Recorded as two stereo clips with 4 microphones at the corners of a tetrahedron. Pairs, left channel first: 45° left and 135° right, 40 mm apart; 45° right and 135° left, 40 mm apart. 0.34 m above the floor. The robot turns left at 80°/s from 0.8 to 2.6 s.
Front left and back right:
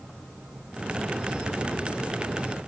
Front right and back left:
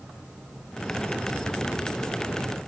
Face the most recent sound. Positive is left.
No sound to turn to.